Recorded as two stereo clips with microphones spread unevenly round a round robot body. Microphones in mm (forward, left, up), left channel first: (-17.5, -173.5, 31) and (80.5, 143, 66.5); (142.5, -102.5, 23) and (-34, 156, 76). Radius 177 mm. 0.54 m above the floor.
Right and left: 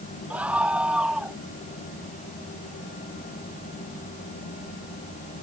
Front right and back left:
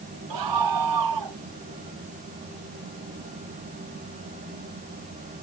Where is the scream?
160° left.